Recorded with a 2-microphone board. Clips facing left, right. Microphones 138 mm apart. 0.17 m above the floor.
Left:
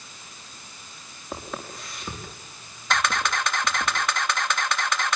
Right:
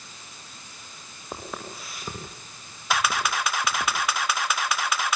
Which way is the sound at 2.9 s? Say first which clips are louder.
Even; 5° right (ahead or behind).